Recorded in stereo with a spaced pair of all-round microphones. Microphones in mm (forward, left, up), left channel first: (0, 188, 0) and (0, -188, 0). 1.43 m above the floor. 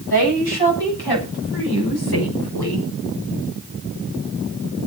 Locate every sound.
0.1 s a woman speaking: 85° left, 8 m; by 2.9 s 80° left, 6 m